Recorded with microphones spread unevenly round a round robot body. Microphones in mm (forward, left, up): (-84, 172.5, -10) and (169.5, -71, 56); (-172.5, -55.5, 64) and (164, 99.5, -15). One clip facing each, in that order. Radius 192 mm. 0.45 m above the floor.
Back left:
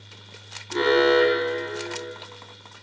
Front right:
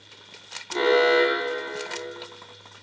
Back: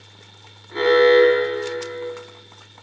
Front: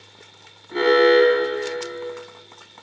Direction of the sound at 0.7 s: 70° left.